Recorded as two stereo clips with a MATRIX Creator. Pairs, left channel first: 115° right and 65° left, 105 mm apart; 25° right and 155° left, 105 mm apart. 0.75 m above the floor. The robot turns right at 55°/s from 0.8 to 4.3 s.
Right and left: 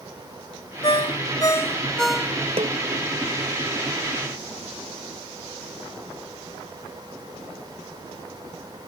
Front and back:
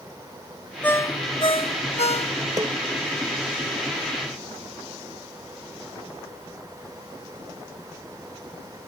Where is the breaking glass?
No breaking glass in this recording.